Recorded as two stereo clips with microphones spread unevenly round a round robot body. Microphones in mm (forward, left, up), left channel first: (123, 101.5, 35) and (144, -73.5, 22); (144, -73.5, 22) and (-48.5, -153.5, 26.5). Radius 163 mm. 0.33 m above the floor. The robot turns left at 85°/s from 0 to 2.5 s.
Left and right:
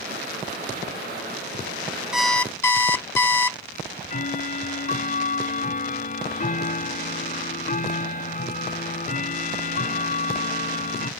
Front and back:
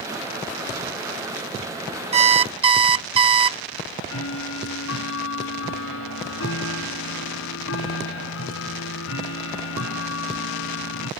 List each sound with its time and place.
2.1 s an alarm clock: 160° right; by 3.6 s 170° left
3.7 s ticking: 55° left